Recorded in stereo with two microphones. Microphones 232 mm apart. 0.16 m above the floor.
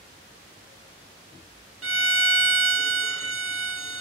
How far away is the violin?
About 0.6 m.